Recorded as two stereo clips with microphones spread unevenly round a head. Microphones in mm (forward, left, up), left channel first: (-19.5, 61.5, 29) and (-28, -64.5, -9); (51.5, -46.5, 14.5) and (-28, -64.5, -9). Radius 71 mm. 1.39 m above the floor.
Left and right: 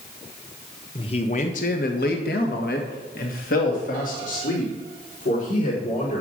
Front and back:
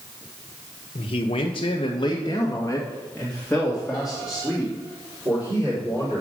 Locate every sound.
0.9 s a man speaking: 30° left, 1.2 m; by 6.2 s 115° left, 4 m